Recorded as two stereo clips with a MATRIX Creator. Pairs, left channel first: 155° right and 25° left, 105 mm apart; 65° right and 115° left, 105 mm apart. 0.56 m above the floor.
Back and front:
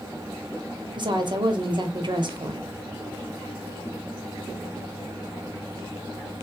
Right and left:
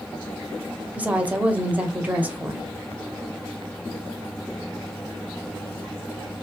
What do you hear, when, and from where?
0.9 s a woman speaking: 40° left, 1.2 m